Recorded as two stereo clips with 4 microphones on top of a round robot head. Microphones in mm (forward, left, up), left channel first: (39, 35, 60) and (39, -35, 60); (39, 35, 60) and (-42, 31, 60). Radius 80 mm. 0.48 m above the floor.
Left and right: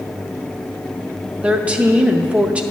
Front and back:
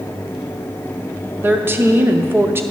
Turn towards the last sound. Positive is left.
turn(degrees=-145)